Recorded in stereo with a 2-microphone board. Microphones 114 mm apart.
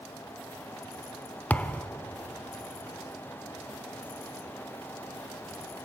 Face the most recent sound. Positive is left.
turn(degrees=15)  # may be behind; listen again after turning